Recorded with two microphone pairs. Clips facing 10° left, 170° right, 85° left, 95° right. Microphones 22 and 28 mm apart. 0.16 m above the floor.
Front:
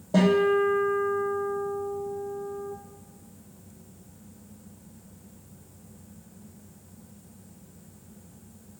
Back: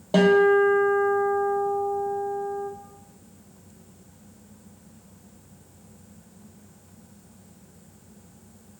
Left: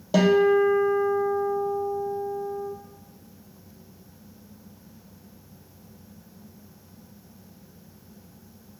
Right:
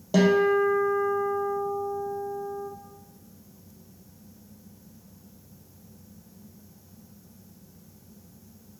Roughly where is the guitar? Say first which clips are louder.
Back 4 dB, left 2 dB; behind.